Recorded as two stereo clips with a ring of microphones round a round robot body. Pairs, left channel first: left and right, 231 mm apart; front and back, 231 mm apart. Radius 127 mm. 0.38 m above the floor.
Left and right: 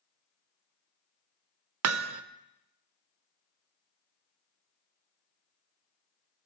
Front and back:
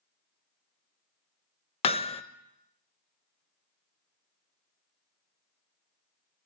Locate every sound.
1.8 s hammering: 65° right, 0.5 m